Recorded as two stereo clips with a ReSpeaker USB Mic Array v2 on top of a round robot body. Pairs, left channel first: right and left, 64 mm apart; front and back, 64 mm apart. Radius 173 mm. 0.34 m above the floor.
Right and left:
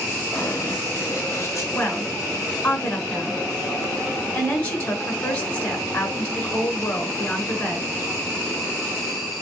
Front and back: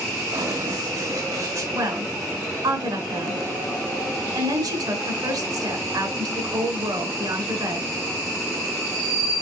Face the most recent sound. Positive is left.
turn(degrees=-165)